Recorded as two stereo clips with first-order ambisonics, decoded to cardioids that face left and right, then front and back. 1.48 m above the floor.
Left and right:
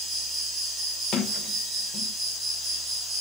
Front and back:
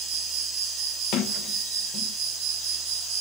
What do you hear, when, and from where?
0.0 s an insect: 165° right, 2 m
1.1 s a sliding door: 40° left, 1.0 m